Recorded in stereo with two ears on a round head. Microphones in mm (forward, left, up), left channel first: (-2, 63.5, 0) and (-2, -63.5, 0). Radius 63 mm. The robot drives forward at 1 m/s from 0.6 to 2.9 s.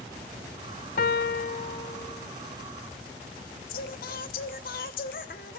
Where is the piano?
60° left (ahead or behind), 0.6 m; by 2.3 s 25° left (ahead or behind), 1.2 m.